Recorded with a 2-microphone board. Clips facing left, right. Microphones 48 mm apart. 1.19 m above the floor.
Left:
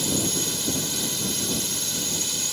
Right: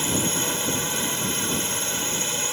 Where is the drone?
35° right (ahead or behind).